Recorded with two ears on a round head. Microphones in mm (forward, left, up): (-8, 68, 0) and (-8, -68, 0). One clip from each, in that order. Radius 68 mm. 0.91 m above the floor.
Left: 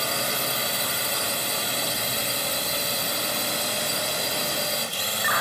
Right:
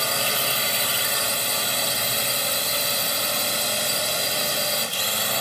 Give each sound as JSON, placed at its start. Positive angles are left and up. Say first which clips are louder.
{"t": 0.0, "sound": "a drone", "louder": "right 3 dB", "side_deg": -10}